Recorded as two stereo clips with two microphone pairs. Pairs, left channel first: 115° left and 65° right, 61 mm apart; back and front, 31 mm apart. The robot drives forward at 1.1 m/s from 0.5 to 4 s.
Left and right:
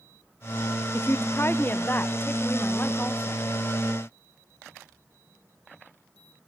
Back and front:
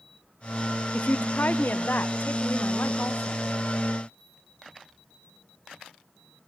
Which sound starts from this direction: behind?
A woman speaking, at 0.9 s.